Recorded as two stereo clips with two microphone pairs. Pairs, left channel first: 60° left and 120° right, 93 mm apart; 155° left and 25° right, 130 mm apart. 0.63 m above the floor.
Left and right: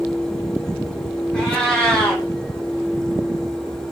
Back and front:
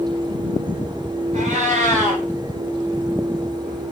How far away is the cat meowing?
About 1.3 m.